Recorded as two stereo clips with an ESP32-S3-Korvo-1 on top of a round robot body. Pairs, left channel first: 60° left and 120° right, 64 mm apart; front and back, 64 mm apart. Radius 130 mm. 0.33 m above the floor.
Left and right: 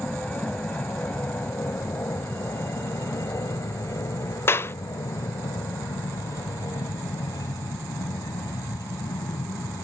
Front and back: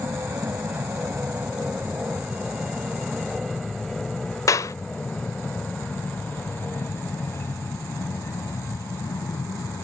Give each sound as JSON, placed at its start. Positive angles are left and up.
{"t": 0.0, "sound": "an aircraft", "azimuth_deg": 125}
{"t": 4.5, "sound": "a clap", "azimuth_deg": 15}